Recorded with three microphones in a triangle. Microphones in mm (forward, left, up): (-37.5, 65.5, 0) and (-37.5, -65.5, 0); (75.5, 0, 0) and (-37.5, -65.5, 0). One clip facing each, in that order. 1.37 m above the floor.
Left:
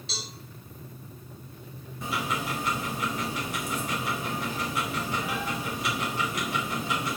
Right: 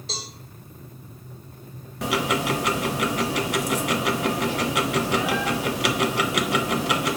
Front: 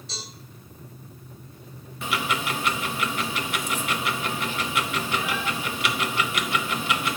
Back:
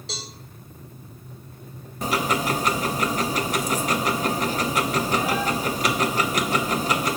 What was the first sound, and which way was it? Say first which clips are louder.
A cowbell: right 5 dB, back 5 dB; 135° right.